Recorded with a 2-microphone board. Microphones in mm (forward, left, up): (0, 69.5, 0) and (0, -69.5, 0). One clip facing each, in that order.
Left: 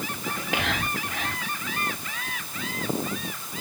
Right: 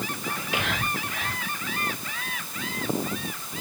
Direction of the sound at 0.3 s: 50° left (ahead or behind).